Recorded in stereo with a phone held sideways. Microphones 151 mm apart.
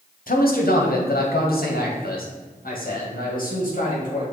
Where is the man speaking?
70° left (ahead or behind), 1.3 m; by 4.2 s 60° left (ahead or behind), 3.5 m.